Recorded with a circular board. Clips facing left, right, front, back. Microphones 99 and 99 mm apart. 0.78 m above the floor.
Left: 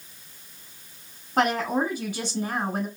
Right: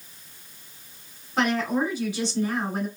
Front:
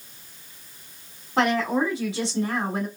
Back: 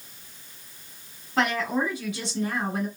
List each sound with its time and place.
1.4 s a woman speaking: 55° left, 1.6 m